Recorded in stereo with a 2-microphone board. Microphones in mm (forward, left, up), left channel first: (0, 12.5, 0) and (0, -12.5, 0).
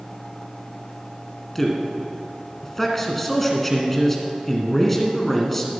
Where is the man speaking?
10° left (ahead or behind), 1.8 m.